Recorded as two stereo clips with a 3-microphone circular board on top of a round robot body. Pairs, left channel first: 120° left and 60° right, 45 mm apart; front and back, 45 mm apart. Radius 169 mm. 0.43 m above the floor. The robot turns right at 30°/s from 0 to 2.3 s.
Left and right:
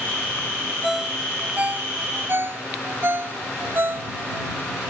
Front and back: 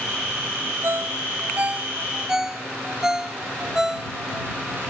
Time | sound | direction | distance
0.8 | a ringtone | 145° right | ?